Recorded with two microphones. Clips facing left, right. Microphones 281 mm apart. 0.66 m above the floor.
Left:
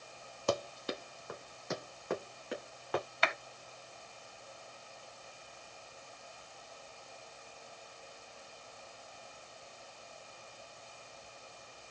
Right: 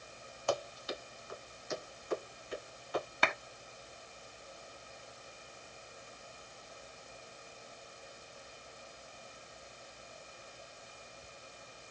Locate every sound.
0.5 s running footsteps: 50° left (ahead or behind), 0.9 m; by 3.0 s 70° left (ahead or behind), 3 m
3.2 s a clap: 55° right (ahead or behind), 0.9 m